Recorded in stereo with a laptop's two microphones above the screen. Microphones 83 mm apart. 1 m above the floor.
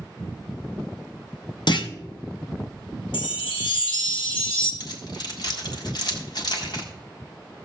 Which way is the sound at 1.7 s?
60° left (ahead or behind).